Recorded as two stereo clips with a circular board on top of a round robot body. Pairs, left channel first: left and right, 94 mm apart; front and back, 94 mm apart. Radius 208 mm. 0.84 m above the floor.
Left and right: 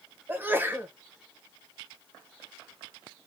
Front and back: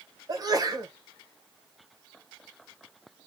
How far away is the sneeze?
About 1.2 m.